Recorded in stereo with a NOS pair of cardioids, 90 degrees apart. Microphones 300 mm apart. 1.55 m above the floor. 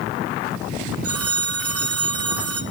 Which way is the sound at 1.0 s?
50° right.